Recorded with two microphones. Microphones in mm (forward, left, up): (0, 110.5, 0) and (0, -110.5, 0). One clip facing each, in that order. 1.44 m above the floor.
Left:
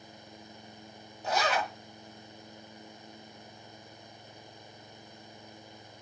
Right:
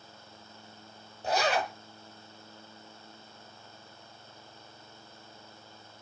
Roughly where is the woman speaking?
No woman speaking in this recording.